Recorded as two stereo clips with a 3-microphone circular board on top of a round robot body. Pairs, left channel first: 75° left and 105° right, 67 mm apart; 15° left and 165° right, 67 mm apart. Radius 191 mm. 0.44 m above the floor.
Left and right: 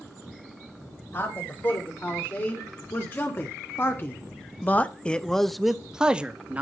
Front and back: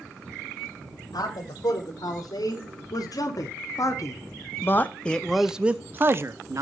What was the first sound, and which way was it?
A man speaking, 20° left.